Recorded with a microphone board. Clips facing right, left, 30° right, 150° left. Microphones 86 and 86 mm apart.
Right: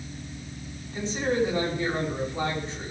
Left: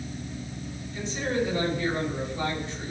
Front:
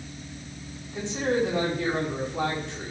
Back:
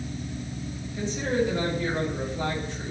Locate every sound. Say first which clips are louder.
0.9 s a man speaking: right 3 dB, front 1 dB; 30° right, 6 m